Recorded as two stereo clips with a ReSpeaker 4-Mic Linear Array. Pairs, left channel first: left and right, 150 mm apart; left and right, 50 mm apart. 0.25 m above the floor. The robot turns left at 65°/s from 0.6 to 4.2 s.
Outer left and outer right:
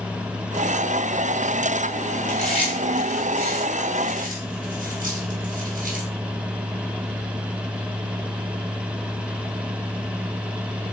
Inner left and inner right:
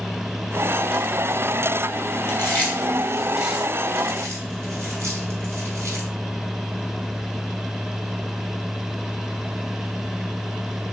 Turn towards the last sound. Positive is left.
turn(degrees=-65)  # may be behind; listen again after turning